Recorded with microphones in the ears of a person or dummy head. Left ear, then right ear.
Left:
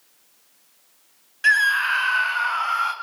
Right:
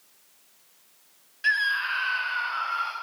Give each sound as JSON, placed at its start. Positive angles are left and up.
{"t": 1.4, "sound": "a scream", "side_deg": 45, "distance_m": 1.2}